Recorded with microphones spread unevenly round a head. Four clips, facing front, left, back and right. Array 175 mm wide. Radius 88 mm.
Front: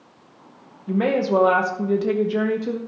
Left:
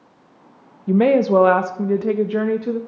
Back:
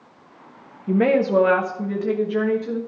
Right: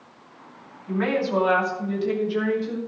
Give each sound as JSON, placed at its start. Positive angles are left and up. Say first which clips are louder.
{"t": 0.9, "sound": "a woman speaking", "louder": "left 9 dB, back 2 dB", "azimuth_deg": 115, "distance_m": 0.7}